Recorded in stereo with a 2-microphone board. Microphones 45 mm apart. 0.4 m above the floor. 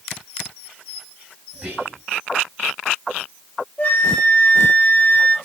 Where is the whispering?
25° right (ahead or behind), 3.5 m.